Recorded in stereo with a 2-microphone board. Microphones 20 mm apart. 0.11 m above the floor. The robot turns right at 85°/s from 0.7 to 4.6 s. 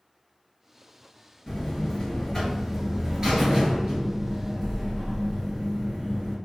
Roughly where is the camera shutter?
I don't hear a camera shutter.